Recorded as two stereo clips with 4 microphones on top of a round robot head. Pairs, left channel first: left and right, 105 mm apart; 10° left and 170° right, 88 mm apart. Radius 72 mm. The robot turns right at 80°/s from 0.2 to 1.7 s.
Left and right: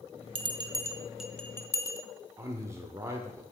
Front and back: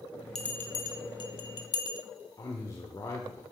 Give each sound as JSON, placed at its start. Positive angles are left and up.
{"t": 0.3, "sound": "a bell", "azimuth_deg": -75, "distance_m": 1.1}
{"t": 2.4, "sound": "a man speaking", "azimuth_deg": -35, "distance_m": 1.0}